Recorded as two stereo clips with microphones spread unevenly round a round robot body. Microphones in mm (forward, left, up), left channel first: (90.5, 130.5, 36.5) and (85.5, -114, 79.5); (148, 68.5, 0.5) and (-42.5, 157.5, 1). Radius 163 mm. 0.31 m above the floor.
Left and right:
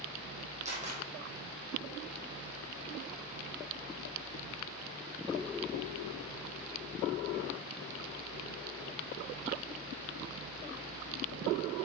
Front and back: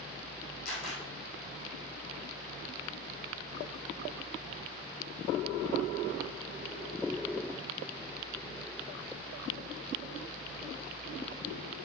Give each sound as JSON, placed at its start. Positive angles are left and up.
{"t": 0.7, "sound": "a camera shutter", "azimuth_deg": -30, "distance_m": 3.5}